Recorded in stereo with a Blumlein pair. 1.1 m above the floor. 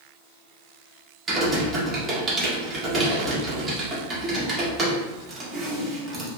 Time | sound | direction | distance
1.3 | typing on a keyboard | 15° right | 1.4 m